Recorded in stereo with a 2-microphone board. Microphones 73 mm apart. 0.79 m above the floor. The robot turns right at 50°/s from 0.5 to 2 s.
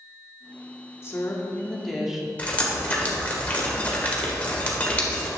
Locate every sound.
1.0 s a woman speaking: 140° left, 1.6 m; by 2.3 s 175° right, 1.6 m
2.4 s dripping: 20° left (ahead or behind), 1.9 m